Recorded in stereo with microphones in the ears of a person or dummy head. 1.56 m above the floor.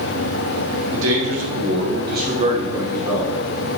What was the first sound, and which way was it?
A man speaking, 85° right.